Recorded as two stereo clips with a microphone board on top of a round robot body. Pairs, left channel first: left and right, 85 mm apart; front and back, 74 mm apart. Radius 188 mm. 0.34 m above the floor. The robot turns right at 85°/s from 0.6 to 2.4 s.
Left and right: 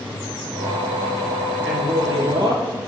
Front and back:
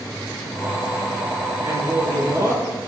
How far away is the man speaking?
About 9.5 m.